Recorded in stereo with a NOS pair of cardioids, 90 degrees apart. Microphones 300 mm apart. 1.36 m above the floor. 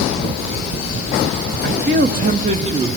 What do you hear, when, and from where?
1.6 s a man speaking: 35° right, 1.8 m; by 2.9 s 20° right, 2 m